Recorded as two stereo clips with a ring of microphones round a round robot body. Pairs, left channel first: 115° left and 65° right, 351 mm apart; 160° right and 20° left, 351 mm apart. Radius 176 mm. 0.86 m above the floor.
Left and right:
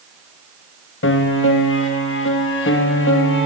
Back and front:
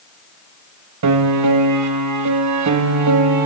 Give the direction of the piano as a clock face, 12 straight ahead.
10 o'clock.